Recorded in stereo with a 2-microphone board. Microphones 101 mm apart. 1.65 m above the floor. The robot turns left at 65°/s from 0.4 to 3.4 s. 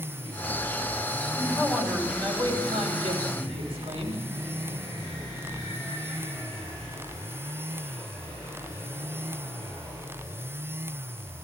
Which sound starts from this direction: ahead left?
A man speaking, at 1.4 s.